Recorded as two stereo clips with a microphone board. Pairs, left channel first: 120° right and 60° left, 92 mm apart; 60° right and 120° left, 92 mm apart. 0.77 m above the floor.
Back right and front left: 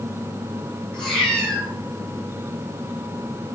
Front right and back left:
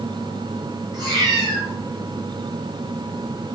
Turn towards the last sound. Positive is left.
turn(degrees=155)